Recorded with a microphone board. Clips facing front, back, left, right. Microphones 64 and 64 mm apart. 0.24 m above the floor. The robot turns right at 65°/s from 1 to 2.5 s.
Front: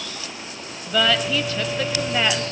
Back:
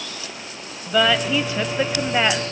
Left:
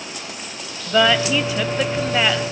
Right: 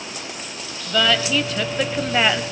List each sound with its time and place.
0.9 s a woman speaking: 125° left, 0.9 m; by 2.4 s 140° right, 0.9 m